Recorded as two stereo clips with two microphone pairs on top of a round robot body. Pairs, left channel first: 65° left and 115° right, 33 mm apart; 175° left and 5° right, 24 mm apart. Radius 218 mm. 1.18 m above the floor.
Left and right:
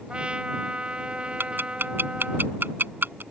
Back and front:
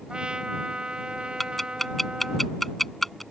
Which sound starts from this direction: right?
Ticking, at 1.4 s.